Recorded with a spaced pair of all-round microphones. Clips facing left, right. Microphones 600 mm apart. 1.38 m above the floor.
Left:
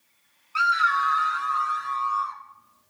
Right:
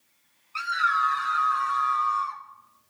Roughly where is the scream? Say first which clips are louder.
Left 3 dB; left.